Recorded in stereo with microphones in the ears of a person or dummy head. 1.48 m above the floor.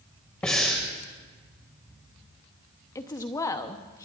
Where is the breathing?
5° left (ahead or behind), 1.3 m.